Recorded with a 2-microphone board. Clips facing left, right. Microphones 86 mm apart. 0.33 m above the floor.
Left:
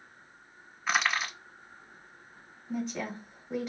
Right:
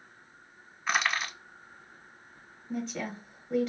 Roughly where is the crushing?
Centre.